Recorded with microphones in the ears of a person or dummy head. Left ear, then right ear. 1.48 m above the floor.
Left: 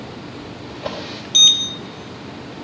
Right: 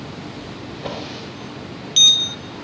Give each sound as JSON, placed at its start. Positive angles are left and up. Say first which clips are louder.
{"t": 0.7, "sound": "a drawer", "louder": "left 2 dB", "side_deg": 5, "distance_m": 4.5}